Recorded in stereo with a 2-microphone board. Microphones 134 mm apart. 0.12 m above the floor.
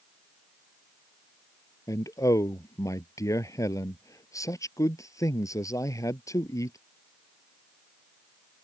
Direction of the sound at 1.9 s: 25° left (ahead or behind).